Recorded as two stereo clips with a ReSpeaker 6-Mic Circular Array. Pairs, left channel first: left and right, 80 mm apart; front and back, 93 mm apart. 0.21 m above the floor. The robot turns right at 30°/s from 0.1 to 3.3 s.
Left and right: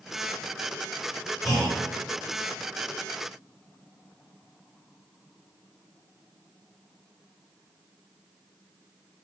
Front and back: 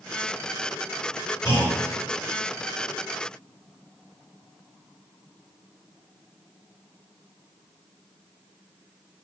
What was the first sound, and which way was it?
A clunk, straight ahead.